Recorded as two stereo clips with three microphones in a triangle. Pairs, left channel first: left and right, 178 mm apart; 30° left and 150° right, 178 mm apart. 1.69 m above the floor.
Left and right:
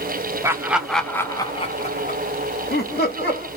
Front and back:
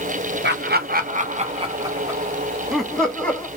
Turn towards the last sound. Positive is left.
turn(degrees=110)